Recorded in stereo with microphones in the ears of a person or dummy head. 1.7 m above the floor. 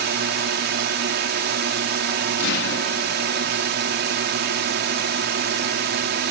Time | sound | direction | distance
0.0 | a drone | 55° right (ahead or behind) | ?
2.4 | an explosion | 70° left (ahead or behind) | ?